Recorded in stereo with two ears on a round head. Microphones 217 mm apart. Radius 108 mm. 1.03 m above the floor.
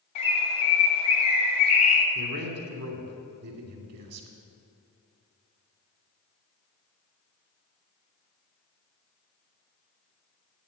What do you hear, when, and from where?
0.1 s a bird: 25° left (ahead or behind), 2 m
2.1 s a man speaking: 70° right (ahead or behind), 2.5 m